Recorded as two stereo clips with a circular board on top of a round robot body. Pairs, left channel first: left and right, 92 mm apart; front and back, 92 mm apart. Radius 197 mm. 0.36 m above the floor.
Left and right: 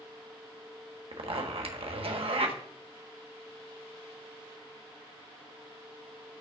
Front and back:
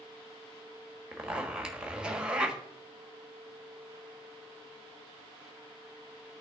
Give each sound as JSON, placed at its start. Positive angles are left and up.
{"t": 1.1, "sound": "a zipper", "azimuth_deg": -100, "distance_m": 1.4}